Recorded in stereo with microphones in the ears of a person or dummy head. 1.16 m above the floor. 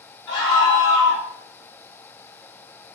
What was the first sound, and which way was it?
A scream, 55° left (ahead or behind).